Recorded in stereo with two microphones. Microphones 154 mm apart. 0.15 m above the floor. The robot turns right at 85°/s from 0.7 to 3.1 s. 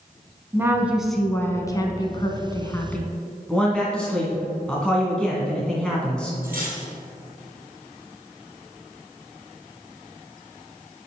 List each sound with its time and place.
0.5 s a woman speaking: 15° right (ahead or behind), 1.2 m; by 3.1 s 5° left (ahead or behind), 1.2 m
3.5 s a man speaking: 5° left (ahead or behind), 1.6 m
6.4 s cutlery clinking: 65° right (ahead or behind), 3 m